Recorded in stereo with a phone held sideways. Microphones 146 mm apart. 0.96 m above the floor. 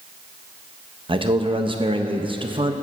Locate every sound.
1.1 s a man speaking: 35° right (ahead or behind), 0.5 m